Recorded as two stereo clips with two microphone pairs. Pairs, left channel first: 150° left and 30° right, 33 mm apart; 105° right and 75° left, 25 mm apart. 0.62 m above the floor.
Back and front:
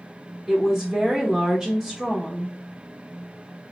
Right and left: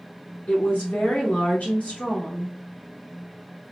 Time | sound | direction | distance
0.5 | a woman speaking | 100° right | 2.5 m